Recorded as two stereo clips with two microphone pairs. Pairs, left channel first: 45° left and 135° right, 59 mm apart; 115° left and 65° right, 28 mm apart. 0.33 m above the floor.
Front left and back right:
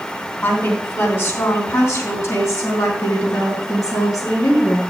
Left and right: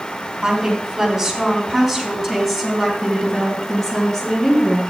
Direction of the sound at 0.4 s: 5° left.